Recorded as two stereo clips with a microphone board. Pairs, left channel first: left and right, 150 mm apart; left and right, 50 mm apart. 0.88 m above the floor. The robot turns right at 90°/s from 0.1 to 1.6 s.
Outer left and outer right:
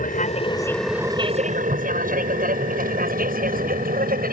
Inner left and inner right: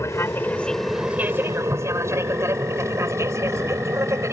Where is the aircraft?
65° left (ahead or behind); by 4.3 s 75° right (ahead or behind).